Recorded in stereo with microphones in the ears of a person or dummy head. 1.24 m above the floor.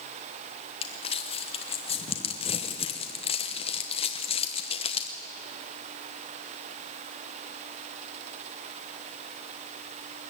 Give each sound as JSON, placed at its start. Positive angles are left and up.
{"t": 0.8, "sound": "crumpling", "side_deg": 25, "distance_m": 0.9}